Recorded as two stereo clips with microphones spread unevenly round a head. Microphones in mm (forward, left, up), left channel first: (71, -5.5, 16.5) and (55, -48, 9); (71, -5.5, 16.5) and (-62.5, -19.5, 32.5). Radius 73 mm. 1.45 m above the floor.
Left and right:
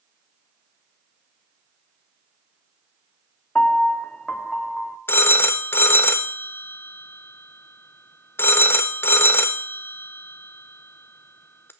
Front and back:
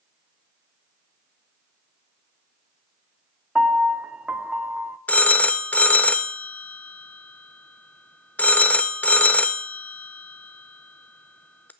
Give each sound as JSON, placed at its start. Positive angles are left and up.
{"t": 3.5, "sound": "a piano", "azimuth_deg": 120, "distance_m": 0.6}
{"t": 5.1, "sound": "a phone ringing", "azimuth_deg": 90, "distance_m": 0.6}